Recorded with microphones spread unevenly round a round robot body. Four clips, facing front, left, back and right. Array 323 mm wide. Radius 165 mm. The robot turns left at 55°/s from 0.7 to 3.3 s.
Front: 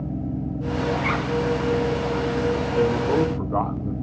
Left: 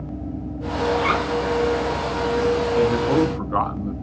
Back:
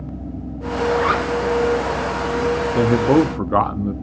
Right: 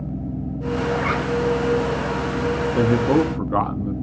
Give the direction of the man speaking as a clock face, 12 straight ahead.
4 o'clock.